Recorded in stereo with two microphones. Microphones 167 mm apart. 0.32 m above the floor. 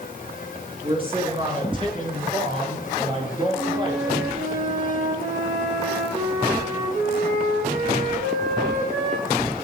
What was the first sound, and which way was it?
A man speaking, 35° right (ahead or behind).